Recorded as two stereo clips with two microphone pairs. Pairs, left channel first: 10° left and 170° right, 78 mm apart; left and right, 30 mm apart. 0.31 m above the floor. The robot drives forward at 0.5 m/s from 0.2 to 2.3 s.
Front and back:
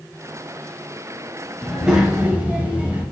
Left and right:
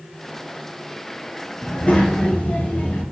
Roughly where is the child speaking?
Left.